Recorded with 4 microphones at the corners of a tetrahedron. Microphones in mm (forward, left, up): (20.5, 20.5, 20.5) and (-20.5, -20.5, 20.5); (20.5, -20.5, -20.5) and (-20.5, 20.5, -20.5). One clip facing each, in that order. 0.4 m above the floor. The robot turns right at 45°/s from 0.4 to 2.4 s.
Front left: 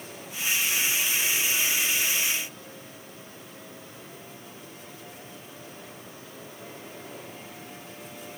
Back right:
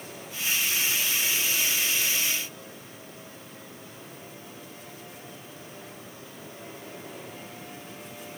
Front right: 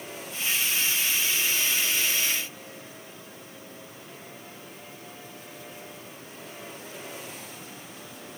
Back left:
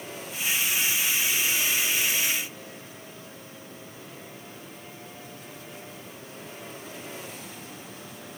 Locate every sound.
Only background noise.